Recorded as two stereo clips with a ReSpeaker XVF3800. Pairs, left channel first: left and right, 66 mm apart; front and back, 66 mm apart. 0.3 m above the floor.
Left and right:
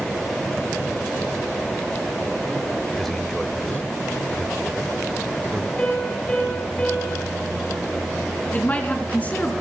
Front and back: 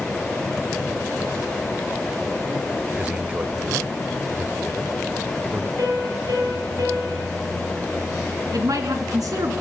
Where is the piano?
160° left, 9 m.